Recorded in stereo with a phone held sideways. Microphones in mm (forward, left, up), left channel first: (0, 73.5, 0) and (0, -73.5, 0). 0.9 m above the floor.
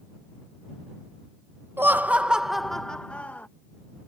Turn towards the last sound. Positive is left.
turn(degrees=10)  # may be behind; listen again after turning